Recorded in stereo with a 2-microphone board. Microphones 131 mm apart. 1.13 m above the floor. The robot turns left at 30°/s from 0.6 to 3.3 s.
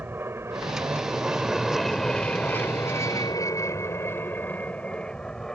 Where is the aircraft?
15° right (ahead or behind); by 5.6 s centre (ahead or behind).